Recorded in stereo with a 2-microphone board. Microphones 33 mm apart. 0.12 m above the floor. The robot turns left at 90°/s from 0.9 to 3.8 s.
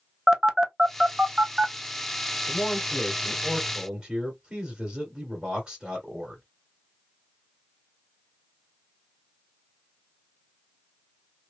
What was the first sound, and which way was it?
A phone buzzing, 10° right (ahead or behind).